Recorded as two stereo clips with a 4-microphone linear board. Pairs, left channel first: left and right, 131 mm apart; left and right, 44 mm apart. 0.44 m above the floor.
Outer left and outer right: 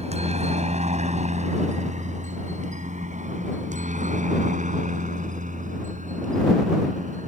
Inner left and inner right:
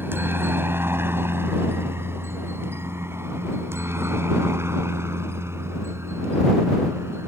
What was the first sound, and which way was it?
A helicopter, 55° right (ahead or behind).